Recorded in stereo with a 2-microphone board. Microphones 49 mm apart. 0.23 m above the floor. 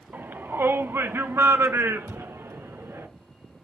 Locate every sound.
0.1 s a shout: 45° right (ahead or behind), 1.3 m; by 3.1 s 65° right (ahead or behind), 2.5 m
2.1 s a thud: 15° right (ahead or behind), 6 m